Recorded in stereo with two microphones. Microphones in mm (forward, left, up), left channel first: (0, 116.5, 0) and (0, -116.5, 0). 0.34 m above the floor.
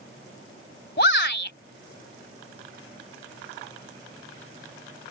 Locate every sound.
1.0 s a shout: 50° left (ahead or behind)